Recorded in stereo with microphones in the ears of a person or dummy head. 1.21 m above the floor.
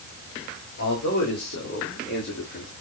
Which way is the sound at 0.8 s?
65° left (ahead or behind).